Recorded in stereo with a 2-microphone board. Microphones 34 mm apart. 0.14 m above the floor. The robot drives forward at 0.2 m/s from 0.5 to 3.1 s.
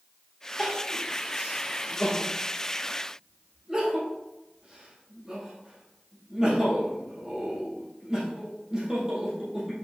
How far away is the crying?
About 1.8 m.